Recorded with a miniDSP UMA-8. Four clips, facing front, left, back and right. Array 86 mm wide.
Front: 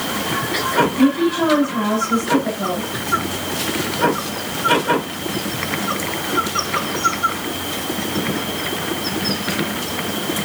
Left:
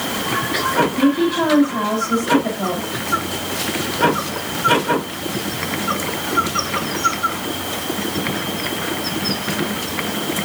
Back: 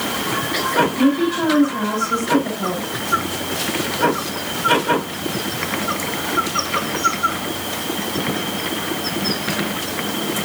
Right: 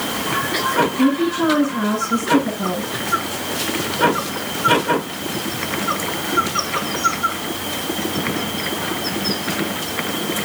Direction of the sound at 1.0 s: 85° left.